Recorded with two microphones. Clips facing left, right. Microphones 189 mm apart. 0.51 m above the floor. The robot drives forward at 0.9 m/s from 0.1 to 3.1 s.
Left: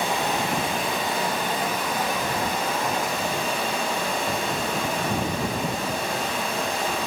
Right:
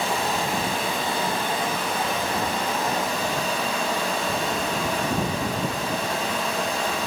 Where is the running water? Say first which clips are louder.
Even; 20° left (ahead or behind), 4 m; by 7.1 s 10° left (ahead or behind), 6.5 m.